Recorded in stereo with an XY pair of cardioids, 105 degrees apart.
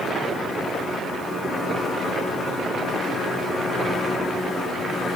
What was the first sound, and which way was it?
Only background noise.